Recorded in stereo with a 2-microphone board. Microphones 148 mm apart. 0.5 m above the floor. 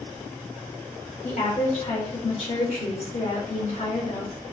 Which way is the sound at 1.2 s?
50° left (ahead or behind).